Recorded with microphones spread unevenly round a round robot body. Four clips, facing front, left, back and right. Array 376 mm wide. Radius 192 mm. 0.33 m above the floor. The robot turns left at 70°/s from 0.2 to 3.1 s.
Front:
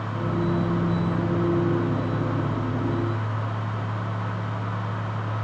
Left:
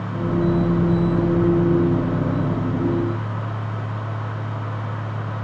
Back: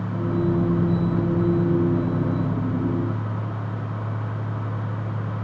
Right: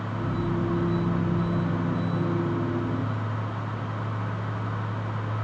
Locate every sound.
Only background noise.